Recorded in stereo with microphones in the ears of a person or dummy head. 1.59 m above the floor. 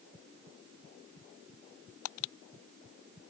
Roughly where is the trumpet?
I don't hear a trumpet.